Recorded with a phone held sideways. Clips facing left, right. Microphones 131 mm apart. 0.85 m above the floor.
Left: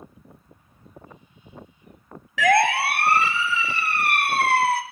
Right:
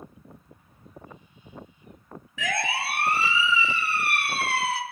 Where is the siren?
75° left (ahead or behind), 2.5 m; by 4.8 s 50° left (ahead or behind), 3.5 m.